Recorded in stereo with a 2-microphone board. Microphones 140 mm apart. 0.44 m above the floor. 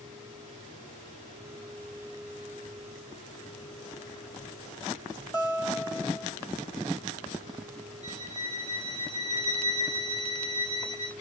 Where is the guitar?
25° left (ahead or behind), 1.5 m.